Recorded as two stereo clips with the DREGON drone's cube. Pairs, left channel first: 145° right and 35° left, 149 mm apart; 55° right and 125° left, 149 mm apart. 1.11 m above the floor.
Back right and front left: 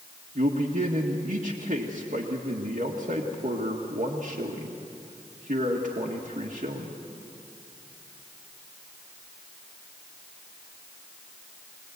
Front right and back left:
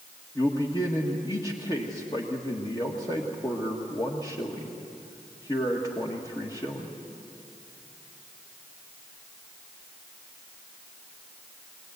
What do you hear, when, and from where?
0.3 s a man speaking: 5° left, 1.8 m